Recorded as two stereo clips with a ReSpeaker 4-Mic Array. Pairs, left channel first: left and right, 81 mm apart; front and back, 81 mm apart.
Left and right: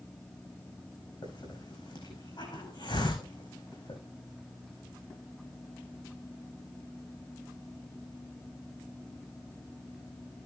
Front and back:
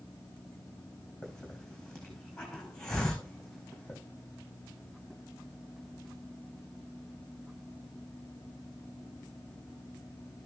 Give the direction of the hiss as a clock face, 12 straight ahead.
9 o'clock.